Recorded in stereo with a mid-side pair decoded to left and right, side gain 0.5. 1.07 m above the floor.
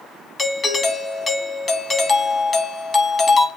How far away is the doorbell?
About 2 m.